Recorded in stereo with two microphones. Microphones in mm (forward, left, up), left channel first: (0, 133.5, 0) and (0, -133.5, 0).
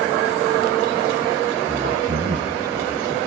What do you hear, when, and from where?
1.7 s a man speaking: 50° right (ahead or behind), 5 m; by 3.2 s 70° right (ahead or behind), 4.5 m